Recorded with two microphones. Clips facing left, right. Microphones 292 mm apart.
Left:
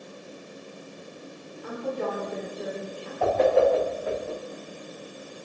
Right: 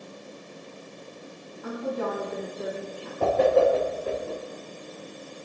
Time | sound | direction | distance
1.6 | a woman speaking | 65° right (ahead or behind) | 9.5 m
3.2 | a whoosh | 45° right (ahead or behind) | 6.5 m